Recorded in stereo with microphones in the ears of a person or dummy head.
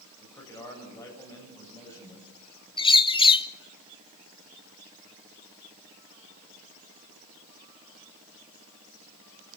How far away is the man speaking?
About 7.5 m.